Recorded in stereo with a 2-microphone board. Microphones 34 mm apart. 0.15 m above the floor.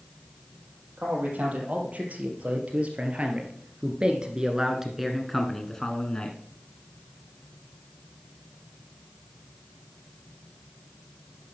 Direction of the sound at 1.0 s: 50° right (ahead or behind).